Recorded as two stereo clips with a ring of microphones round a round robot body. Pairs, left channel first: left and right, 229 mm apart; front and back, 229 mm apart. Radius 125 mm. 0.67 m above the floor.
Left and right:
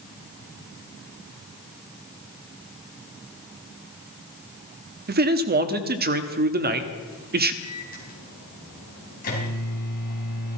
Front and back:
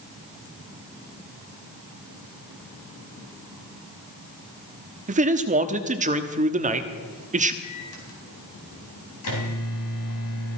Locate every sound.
5.1 s a man speaking: 130° right, 1.1 m
7.6 s a microwave: 30° left, 3.5 m